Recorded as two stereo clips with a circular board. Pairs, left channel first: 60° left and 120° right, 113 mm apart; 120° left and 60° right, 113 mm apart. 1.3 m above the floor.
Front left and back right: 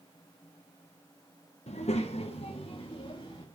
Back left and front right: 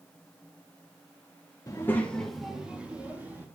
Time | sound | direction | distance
1.7 | a child speaking | 65° left | 0.9 m